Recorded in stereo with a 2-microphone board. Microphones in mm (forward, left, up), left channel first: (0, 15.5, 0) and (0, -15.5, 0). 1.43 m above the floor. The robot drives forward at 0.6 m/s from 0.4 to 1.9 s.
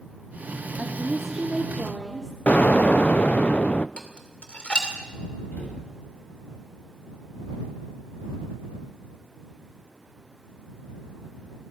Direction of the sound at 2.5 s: 55° left (ahead or behind).